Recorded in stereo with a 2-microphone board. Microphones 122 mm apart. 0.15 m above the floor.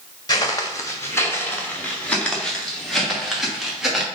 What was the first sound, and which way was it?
Footsteps, 35° left (ahead or behind).